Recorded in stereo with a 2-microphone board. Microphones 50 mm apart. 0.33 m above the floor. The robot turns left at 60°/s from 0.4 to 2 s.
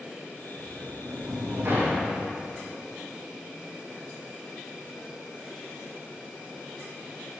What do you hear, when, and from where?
0.6 s a sliding door: 60° right, 4 m; by 2.2 s 145° right, 4 m